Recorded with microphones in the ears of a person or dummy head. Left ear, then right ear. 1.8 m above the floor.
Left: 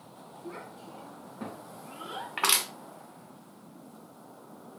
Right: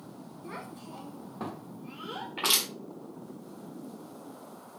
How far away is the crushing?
About 1.3 m.